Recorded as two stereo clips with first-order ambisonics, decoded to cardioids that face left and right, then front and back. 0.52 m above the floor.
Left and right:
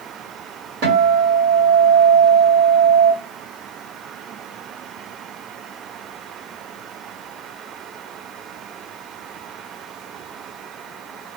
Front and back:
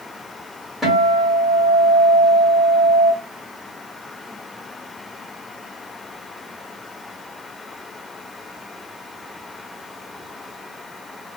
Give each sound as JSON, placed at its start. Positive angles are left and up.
{"t": 0.8, "sound": "a guitar", "azimuth_deg": -80, "distance_m": 2.0}